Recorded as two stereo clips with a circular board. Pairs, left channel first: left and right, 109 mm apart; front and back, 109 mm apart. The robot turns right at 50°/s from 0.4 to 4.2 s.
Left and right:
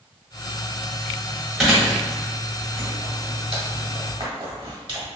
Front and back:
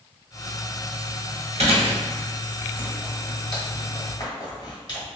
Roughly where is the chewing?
Behind.